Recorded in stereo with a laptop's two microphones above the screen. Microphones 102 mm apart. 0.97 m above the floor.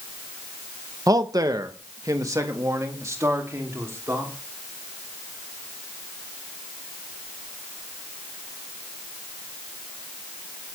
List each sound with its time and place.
1.1 s a man speaking: 35° right (ahead or behind), 0.7 m; by 4.3 s 25° right (ahead or behind), 3 m